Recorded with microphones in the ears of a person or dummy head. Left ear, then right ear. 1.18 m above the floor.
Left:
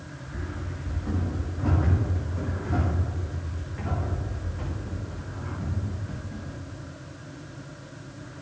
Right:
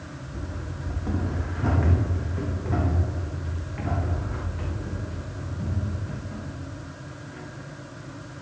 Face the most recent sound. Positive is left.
turn(degrees=-15)  # may be behind; listen again after turning